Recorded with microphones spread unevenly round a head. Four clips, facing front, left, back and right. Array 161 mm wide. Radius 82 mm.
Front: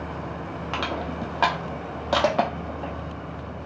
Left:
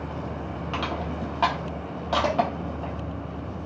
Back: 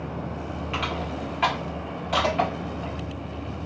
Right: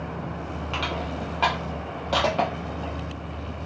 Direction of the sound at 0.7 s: Straight ahead.